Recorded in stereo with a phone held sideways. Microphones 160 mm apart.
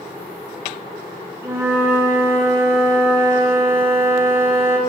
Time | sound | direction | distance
1.4 | a flute | 15° right (ahead or behind) | 0.6 m